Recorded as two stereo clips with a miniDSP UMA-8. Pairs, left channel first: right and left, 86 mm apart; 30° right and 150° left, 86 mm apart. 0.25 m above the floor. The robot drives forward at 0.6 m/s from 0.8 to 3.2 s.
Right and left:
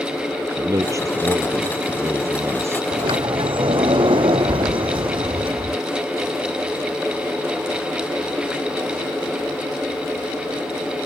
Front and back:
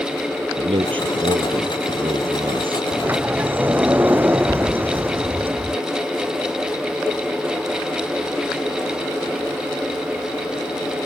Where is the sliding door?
80° left; by 5.8 s 85° left.